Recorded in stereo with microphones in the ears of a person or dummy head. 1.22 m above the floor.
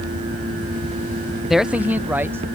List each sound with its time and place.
1.5 s a man speaking: centre (ahead or behind); by 2.5 s 15° right (ahead or behind)